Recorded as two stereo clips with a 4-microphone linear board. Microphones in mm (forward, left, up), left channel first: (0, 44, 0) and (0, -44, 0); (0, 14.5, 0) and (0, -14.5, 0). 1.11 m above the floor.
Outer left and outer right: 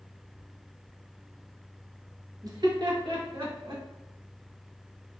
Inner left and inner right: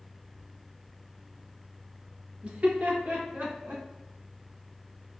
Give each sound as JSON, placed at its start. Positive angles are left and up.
{"t": 2.4, "sound": "laughter", "side_deg": -40, "distance_m": 0.7}